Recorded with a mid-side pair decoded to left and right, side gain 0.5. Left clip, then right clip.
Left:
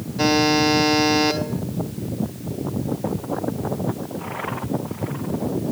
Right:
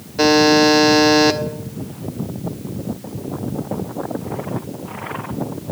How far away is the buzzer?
About 1.3 m.